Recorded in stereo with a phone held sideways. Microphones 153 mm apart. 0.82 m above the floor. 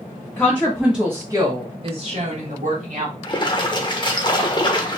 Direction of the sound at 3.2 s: 35° left (ahead or behind).